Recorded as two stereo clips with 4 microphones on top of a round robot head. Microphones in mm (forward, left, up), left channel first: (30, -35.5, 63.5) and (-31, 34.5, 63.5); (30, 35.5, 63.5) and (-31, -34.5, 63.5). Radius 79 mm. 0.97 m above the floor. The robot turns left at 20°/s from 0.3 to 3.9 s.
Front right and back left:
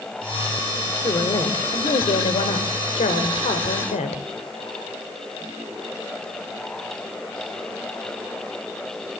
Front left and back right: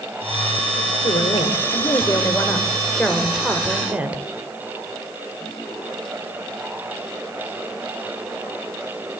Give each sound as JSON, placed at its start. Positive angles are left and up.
{"t": 1.0, "sound": "a woman speaking", "azimuth_deg": 0, "distance_m": 3.5}